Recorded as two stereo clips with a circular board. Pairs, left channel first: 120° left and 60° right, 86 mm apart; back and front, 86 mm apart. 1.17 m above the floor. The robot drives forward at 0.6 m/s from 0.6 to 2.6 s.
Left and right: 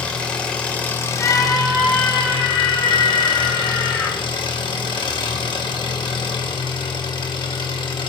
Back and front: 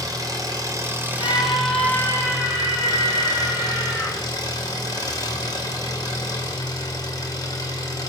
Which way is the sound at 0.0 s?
45° left.